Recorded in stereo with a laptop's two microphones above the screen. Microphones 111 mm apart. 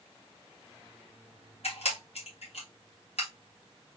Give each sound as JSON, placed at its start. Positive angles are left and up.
{"t": 1.6, "sound": "a camera shutter", "side_deg": 70, "distance_m": 1.7}